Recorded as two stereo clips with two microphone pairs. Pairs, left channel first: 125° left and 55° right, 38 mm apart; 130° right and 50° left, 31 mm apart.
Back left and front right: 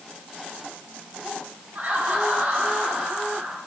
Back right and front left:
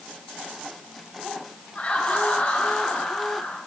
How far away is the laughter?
About 3 m.